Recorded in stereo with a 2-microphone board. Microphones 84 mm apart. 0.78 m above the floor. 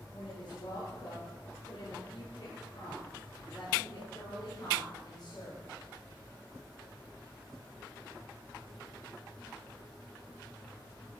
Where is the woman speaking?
80° left, 9 m; by 5.7 s 50° left (ahead or behind), 13 m.